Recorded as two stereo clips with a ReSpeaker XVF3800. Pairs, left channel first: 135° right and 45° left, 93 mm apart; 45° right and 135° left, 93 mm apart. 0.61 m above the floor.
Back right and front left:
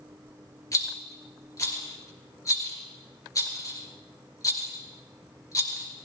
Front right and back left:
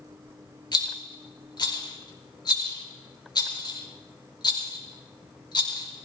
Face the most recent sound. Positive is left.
turn(degrees=-85)